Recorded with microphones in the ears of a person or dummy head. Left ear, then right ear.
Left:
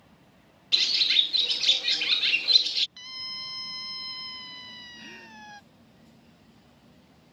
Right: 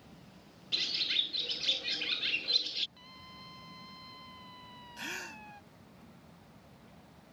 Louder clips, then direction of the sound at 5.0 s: Right 3 dB; 45° right (ahead or behind).